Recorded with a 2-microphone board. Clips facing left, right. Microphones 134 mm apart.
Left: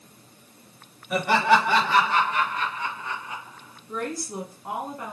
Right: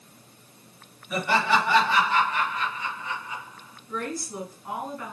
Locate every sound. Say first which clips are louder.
1.1 s laughter: left 3 dB; 60° left (ahead or behind), 3 m; by 3.8 s 45° left (ahead or behind), 5 m
3.9 s a woman speaking: left 1 dB; 35° left (ahead or behind), 2.5 m